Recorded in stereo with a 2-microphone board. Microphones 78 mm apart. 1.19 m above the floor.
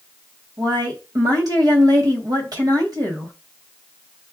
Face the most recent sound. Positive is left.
turn(degrees=-55)  # may be behind; listen again after turning